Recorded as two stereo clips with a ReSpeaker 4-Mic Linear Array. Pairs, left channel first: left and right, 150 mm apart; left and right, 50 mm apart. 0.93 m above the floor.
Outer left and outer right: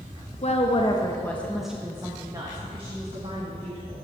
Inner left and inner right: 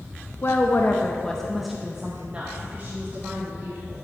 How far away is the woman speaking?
About 1.0 m.